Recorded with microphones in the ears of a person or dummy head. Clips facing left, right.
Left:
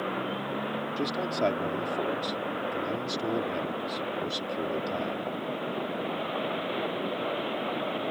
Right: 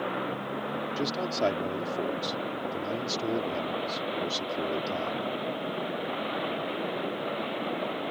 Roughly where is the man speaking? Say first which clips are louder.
Even; centre.